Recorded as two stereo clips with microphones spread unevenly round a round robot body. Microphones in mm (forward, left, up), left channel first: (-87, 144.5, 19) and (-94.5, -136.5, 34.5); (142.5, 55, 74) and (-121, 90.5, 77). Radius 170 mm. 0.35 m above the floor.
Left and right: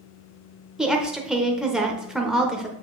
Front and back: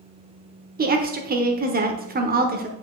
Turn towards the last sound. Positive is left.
turn(degrees=175)